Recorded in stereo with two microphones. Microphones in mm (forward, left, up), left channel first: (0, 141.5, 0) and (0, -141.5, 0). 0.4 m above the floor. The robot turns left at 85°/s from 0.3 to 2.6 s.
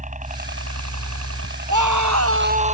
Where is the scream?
80° right; by 2.8 s 155° right.